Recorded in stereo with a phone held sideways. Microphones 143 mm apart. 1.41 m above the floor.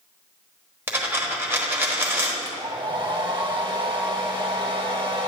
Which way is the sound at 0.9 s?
15° right (ahead or behind).